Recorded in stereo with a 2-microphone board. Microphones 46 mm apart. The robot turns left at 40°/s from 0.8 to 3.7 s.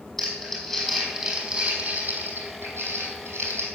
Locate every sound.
0.2 s crumpling: 5° left (ahead or behind), 5 m; by 3.6 s 70° right (ahead or behind), 5 m